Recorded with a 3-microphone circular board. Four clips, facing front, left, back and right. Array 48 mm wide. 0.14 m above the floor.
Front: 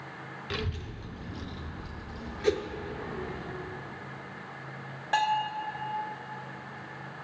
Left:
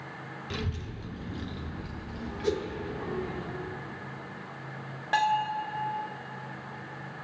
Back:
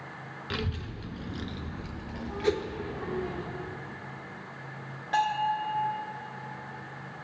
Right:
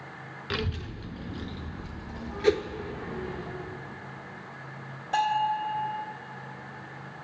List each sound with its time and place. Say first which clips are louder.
0.5 s a child speaking: right 5 dB, back 2 dB; 90° right, 0.9 m; by 3.4 s 155° left, 3 m
2.4 s a whoosh: right 6 dB, even; 80° right, 0.6 m
5.1 s a bell: right 1 dB, even; 75° left, 1.2 m